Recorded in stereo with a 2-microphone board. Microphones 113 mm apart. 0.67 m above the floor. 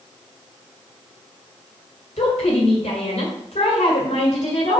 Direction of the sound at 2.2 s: 75° left (ahead or behind).